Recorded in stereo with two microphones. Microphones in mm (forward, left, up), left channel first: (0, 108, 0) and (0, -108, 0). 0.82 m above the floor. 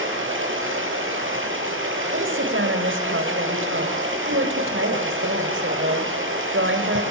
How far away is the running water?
About 9 m.